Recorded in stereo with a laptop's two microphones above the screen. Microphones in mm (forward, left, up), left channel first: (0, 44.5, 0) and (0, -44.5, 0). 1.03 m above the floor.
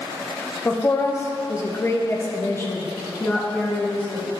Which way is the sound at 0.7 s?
25° left (ahead or behind).